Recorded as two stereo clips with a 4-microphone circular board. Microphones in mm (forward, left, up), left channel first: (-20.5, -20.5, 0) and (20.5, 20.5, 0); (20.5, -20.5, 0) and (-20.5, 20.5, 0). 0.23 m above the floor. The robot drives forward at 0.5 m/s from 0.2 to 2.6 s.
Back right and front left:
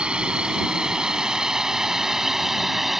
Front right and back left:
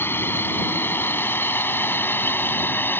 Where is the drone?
20° right; by 3.0 s 40° right.